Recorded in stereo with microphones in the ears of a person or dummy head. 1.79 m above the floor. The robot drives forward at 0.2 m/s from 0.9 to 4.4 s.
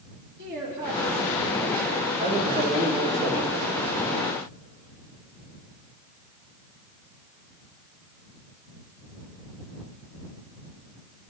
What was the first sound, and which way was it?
A woman speaking, 65° right (ahead or behind).